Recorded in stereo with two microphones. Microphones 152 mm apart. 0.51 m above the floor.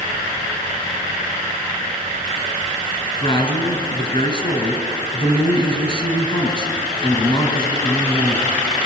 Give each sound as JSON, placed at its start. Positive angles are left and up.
{"t": 3.2, "sound": "a man speaking", "side_deg": 35, "distance_m": 4.0}